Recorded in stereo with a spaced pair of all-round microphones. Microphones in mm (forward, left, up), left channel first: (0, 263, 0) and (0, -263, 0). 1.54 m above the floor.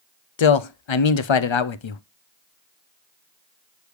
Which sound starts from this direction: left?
A man speaking, at 0.4 s.